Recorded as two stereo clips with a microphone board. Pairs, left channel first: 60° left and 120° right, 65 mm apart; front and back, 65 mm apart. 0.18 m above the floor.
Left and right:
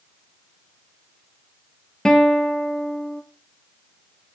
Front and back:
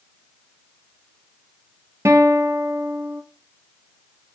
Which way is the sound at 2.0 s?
140° left.